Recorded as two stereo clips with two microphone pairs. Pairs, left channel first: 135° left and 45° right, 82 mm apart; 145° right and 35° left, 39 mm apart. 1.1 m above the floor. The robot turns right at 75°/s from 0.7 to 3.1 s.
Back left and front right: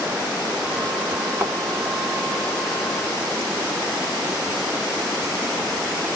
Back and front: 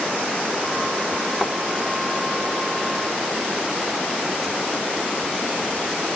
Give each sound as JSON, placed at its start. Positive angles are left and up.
{"t": 1.4, "sound": "a thud", "azimuth_deg": -75, "distance_m": 1.1}